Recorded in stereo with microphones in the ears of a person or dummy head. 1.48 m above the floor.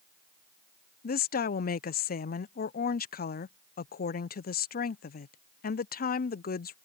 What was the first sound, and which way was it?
A woman speaking, 45° left (ahead or behind).